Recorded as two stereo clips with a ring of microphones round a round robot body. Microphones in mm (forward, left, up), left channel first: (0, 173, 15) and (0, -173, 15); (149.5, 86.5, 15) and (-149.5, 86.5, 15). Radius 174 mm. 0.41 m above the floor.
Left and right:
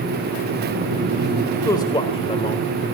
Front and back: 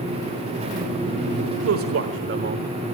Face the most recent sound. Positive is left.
turn(degrees=145)